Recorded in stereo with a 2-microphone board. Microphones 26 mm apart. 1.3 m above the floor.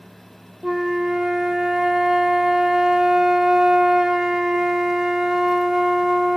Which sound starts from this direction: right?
A flute, at 0.6 s.